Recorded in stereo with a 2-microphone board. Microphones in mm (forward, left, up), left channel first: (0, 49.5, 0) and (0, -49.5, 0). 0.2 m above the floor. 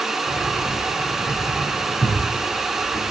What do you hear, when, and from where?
0.3 s keys jangling: 50° left (ahead or behind), 6 m; by 3.0 s 70° left (ahead or behind), 7 m